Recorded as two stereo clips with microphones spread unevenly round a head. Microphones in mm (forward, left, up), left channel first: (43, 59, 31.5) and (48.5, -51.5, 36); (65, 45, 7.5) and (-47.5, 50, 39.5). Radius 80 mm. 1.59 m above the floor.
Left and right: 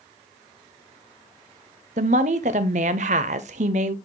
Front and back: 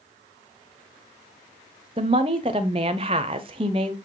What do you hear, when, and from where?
2.0 s a woman speaking: 125° right, 0.8 m